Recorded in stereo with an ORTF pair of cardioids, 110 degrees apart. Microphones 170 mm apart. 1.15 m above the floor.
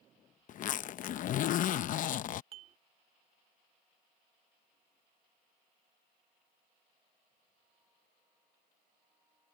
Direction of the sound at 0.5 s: 55° left.